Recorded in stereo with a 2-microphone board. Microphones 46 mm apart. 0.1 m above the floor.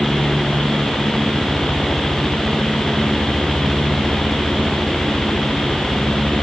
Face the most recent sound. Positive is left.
No sound to turn to.